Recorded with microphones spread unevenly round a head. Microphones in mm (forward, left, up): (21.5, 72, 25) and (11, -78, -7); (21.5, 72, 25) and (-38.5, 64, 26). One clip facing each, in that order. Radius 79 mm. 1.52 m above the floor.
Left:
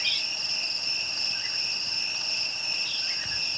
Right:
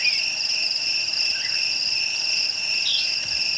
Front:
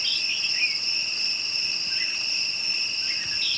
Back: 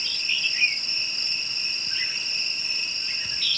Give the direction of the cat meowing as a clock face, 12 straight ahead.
No cat meowing in this recording.